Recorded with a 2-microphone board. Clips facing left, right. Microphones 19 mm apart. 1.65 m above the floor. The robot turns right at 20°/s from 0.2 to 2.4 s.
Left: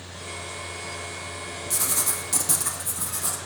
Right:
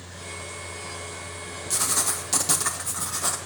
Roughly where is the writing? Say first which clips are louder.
Right 2 dB; centre.